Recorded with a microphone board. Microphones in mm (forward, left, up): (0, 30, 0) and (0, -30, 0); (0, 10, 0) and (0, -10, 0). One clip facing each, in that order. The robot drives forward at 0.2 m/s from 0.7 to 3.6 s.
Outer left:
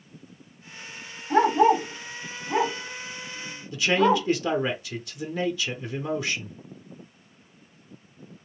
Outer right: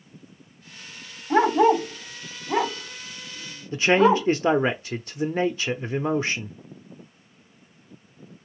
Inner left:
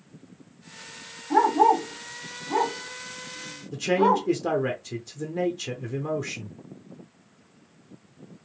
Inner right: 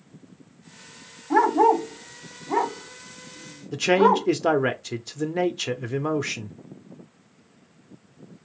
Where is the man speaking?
35° right (ahead or behind), 0.5 m.